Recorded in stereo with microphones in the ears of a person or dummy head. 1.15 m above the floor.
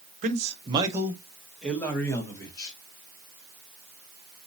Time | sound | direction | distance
0.2 | a man speaking | 50° right (ahead or behind) | 1.1 m